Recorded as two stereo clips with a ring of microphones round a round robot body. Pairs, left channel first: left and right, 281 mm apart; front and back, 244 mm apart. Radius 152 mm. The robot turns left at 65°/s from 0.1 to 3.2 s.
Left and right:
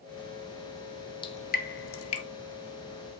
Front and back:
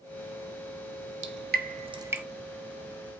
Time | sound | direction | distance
1.2 | dripping | 160° left | 0.8 m